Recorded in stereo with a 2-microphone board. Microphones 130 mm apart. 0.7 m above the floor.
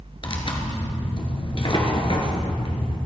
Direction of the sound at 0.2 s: 40° left (ahead or behind).